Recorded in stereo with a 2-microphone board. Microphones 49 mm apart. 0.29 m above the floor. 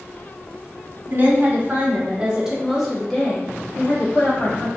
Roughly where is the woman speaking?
Right.